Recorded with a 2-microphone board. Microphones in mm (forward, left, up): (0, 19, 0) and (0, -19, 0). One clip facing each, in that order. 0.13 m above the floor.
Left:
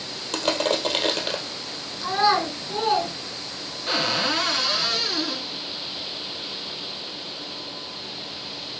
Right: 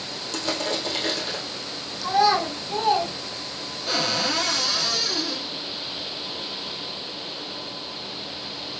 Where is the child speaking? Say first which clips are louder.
Right 1 dB; 20° left (ahead or behind), 4 m.